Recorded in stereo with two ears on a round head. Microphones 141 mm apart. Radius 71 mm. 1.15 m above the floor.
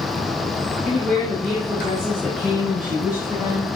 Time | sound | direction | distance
0.8 | a woman speaking | 5° left (ahead or behind) | 3.5 m